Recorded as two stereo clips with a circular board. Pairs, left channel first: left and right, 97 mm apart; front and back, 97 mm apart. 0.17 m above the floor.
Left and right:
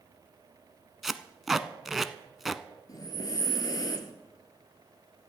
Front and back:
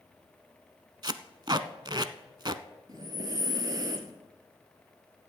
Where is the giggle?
No giggle in this recording.